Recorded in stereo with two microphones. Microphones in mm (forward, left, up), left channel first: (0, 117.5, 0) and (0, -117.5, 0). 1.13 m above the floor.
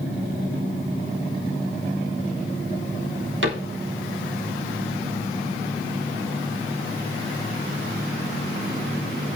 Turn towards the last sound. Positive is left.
turn(degrees=-55)  # may be behind; listen again after turning